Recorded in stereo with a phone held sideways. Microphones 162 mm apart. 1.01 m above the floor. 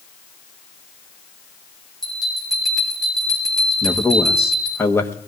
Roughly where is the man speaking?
Centre.